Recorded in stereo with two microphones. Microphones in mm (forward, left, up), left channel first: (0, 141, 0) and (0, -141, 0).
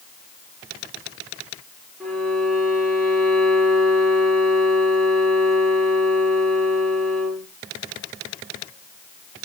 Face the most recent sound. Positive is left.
turn(degrees=0)  # may be behind; listen again after turning